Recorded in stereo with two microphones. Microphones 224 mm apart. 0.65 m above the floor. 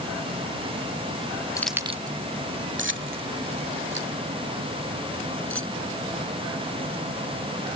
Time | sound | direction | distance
1.6 | keys jangling | 15° left (ahead or behind) | ?